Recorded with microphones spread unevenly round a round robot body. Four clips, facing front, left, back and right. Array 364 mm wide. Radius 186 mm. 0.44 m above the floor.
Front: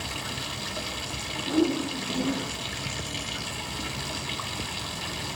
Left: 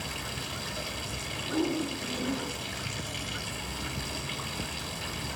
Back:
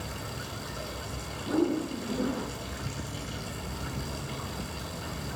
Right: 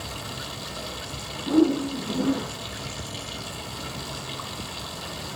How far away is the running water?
About 1.7 m.